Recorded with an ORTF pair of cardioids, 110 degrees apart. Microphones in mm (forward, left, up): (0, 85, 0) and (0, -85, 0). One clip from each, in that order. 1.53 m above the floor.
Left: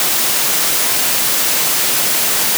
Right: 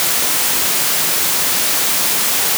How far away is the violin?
No violin in this recording.